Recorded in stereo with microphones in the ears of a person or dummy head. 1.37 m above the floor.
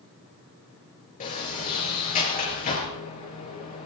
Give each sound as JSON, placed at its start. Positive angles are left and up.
{"t": 1.2, "sound": "a sliding door", "side_deg": 35, "distance_m": 5.0}